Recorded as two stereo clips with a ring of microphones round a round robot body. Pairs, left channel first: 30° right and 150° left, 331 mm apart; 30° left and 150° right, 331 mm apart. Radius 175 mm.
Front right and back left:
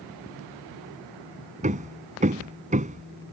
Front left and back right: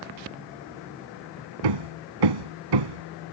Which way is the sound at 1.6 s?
140° right.